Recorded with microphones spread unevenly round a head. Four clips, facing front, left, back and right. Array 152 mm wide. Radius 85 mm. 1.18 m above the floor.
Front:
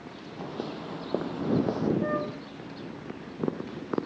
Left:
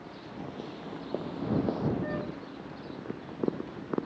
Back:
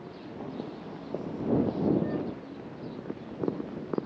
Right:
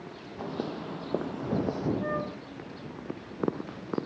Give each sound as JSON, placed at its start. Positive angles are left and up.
{"t": 0.4, "sound": "footsteps", "azimuth_deg": -50}
{"t": 2.0, "sound": "a flute", "azimuth_deg": -15}